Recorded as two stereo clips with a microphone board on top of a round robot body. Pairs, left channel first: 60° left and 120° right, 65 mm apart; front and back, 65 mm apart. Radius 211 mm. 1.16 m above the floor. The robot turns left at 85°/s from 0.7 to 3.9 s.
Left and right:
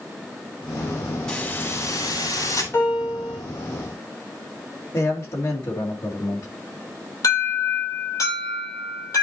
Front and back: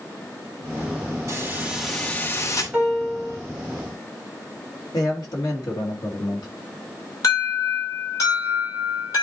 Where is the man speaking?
20° left, 2.5 m.